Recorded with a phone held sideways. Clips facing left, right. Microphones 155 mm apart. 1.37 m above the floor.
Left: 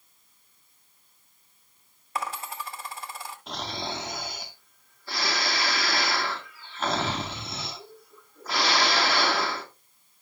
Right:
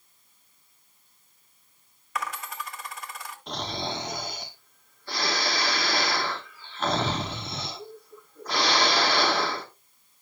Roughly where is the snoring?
Centre.